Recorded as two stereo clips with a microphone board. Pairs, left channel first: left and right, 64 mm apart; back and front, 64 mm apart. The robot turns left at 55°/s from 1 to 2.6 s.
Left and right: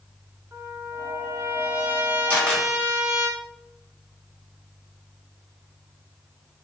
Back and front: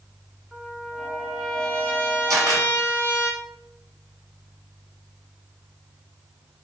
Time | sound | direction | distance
0.5 | a trumpet | 85° right | 1.4 m
2.3 | a camera shutter | 25° left | 1.6 m